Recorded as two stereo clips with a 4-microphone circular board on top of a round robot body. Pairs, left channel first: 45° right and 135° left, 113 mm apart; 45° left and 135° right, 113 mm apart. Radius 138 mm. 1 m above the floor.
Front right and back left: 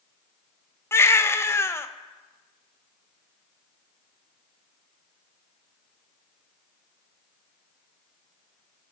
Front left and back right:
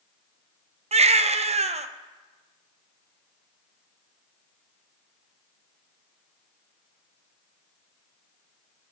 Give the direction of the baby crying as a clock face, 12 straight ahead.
4 o'clock.